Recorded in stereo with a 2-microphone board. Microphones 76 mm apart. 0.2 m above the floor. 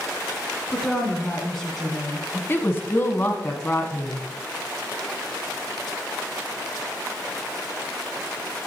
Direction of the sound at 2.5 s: 30° left (ahead or behind).